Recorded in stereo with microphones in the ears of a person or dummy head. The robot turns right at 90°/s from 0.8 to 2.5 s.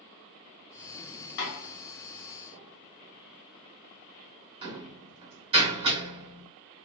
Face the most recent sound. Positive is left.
turn(degrees=-25)  # may be behind; listen again after turning